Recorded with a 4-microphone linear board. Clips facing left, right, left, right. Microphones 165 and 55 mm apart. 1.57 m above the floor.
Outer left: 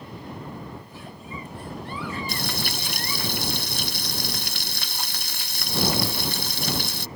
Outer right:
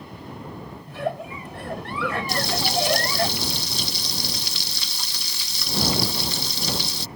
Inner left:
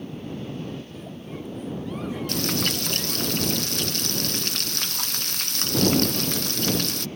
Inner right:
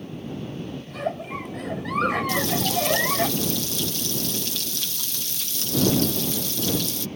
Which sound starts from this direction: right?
A giggle, at 0.9 s.